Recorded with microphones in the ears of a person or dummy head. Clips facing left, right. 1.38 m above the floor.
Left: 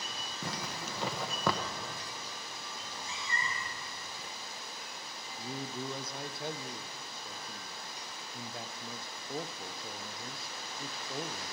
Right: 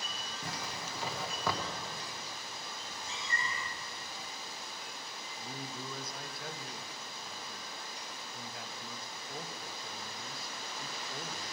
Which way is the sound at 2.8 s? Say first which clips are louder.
Left 1 dB; 60° left (ahead or behind).